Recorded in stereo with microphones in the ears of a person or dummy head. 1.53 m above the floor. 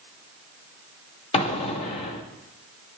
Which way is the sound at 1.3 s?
30° left (ahead or behind).